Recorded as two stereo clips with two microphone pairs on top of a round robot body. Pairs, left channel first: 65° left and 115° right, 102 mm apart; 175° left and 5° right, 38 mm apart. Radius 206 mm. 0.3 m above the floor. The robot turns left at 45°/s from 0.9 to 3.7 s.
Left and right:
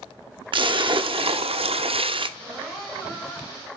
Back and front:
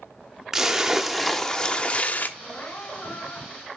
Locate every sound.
0.5 s a splash: 85° right, 0.9 m; by 2.3 s 145° right, 0.9 m
2.4 s crying: 170° left, 3.5 m; by 3.8 s 110° left, 3.5 m